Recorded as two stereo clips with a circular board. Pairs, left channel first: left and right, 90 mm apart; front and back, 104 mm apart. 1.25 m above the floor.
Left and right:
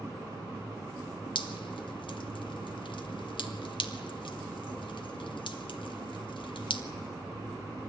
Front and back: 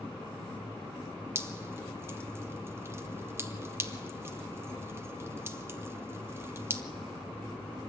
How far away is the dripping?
About 1.6 m.